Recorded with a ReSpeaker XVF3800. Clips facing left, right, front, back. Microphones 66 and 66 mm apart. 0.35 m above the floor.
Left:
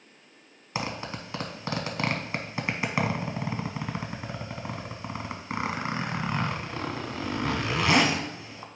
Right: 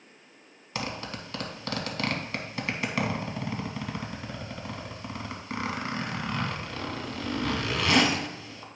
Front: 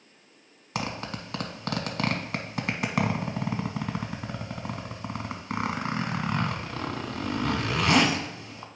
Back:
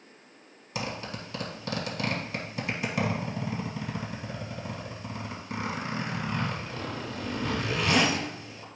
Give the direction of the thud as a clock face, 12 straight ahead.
No thud in this recording.